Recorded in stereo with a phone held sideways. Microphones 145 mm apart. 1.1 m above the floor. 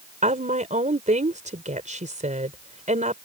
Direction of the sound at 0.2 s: 55° right (ahead or behind).